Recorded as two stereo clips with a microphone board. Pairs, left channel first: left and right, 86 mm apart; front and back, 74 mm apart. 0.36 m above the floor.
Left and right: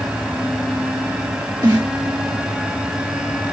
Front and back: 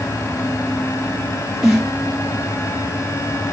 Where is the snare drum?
100° right, 2.0 m.